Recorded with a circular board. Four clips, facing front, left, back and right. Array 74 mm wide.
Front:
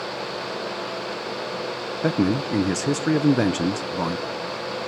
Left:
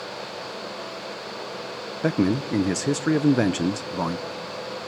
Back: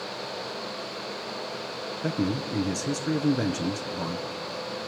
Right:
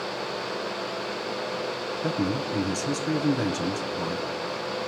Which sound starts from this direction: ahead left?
A man speaking, at 2.0 s.